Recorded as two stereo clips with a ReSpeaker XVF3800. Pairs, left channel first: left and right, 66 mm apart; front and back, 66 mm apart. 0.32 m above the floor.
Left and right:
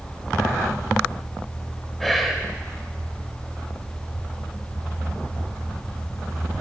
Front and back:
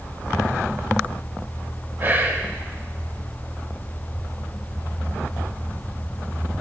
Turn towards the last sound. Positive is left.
turn(degrees=175)